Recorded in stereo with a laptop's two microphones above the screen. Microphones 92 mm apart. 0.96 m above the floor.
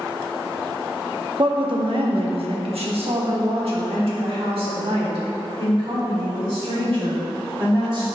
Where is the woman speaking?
50° right (ahead or behind), 1.0 m; by 8.0 s 65° right (ahead or behind), 4 m.